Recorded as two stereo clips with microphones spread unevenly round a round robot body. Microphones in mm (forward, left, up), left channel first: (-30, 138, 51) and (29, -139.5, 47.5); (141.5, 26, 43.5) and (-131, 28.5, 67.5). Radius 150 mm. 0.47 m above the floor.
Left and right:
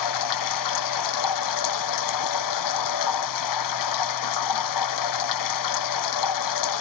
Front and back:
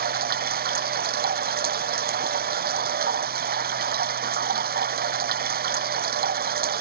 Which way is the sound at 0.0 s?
120° left.